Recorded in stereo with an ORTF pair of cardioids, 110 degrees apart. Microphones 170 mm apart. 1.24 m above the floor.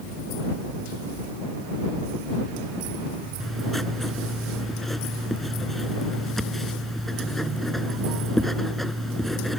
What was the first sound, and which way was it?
Writing, straight ahead.